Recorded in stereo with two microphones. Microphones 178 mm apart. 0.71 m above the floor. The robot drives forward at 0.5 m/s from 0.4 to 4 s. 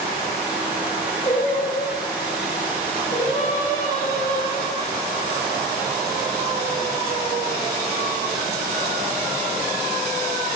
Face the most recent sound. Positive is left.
turn(degrees=45)  # may be behind; listen again after turning